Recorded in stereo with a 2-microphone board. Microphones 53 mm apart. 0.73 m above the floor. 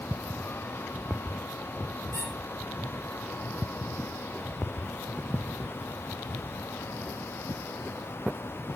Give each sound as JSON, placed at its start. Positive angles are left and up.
{"t": 2.1, "sound": "a squeak", "side_deg": 60, "distance_m": 7.0}